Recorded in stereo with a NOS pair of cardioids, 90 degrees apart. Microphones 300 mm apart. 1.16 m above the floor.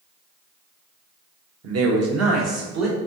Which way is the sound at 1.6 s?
55° right.